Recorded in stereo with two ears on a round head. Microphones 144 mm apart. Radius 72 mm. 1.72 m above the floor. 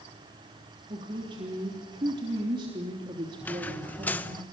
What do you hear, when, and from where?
0.9 s a woman speaking: 30° right (ahead or behind), 3.5 m
3.4 s a squeak: 10° left (ahead or behind), 1.0 m